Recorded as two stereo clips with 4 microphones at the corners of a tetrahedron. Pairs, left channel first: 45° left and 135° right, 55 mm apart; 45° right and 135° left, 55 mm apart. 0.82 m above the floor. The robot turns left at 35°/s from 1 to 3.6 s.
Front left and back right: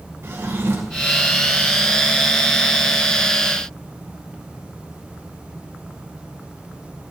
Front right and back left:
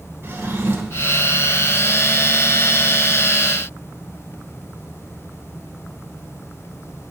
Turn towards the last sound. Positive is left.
turn(degrees=85)